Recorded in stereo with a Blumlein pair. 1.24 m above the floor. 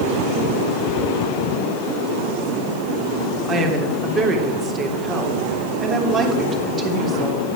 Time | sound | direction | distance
3.5 | a woman speaking | 20° right | 3 m